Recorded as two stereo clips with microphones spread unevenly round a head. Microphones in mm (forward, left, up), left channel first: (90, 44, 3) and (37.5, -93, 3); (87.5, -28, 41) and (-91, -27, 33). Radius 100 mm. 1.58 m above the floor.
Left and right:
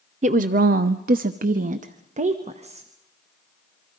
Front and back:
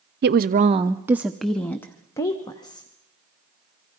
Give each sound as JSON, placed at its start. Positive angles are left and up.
{"t": 0.2, "sound": "a woman speaking", "azimuth_deg": -160, "distance_m": 0.6}